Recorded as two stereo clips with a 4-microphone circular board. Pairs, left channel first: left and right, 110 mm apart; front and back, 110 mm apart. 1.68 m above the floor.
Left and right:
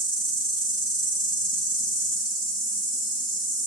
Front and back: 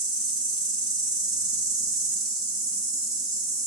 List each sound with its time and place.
0.0 s an insect: 135° left, 1.8 m